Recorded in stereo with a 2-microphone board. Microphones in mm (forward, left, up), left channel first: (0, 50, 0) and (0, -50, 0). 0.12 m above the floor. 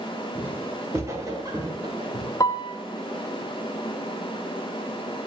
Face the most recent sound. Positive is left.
turn(degrees=35)  # may be behind; listen again after turning